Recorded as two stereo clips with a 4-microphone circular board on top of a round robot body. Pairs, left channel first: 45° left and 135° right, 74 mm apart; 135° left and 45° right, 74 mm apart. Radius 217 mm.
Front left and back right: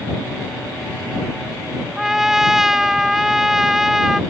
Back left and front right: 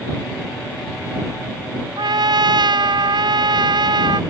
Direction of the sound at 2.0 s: 50° right.